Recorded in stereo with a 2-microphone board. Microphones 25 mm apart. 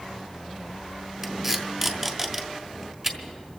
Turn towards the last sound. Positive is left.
turn(degrees=-20)  # may be behind; listen again after turning